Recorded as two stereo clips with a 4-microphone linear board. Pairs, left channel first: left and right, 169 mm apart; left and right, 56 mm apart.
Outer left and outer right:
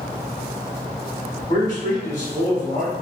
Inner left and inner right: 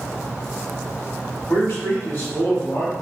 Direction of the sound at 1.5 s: 30° left (ahead or behind).